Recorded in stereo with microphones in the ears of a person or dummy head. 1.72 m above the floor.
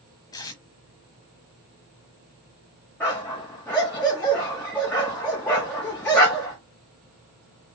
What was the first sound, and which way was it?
Tape being pulled, 20° left (ahead or behind).